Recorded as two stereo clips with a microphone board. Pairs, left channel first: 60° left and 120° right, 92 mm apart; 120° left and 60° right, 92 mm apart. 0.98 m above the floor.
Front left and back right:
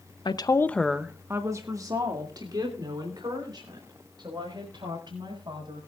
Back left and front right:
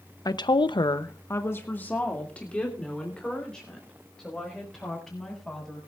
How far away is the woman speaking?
About 0.9 m.